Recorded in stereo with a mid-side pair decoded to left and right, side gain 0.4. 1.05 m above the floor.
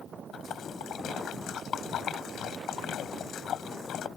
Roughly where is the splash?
Left.